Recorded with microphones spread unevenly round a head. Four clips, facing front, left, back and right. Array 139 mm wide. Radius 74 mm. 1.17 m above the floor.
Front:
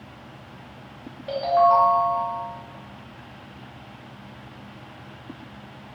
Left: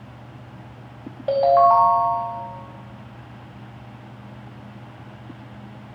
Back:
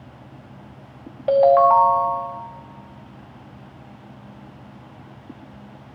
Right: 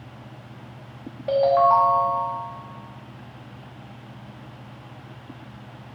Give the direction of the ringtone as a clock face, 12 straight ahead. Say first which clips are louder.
Left 2 dB, back 5 dB; 7 o'clock.